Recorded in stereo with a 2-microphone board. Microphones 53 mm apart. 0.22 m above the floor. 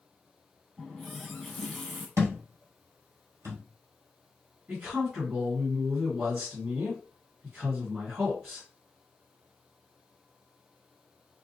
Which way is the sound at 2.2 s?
80° right.